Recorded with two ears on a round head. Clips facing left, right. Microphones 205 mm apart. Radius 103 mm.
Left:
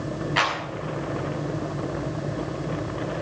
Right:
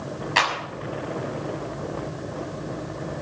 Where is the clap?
65° right (ahead or behind), 6.5 m.